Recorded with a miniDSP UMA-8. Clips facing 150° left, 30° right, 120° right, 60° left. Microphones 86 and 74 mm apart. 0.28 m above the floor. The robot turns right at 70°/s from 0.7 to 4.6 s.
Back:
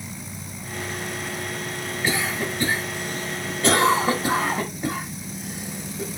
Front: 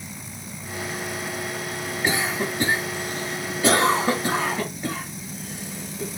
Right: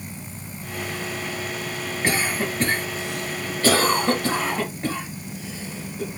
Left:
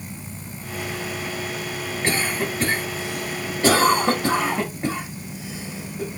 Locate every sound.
2.0 s a cough: 70° right, 0.9 m; by 6.2 s 110° left, 0.9 m